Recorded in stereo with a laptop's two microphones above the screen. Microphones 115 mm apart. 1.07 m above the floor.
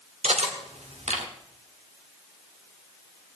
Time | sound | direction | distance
0.2 | cutlery clinking | 70° right (ahead or behind) | 1.4 m